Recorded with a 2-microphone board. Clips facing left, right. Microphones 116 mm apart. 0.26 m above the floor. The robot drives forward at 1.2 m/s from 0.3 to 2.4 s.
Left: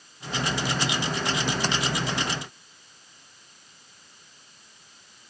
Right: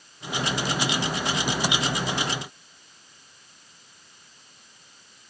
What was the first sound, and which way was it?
Only background noise.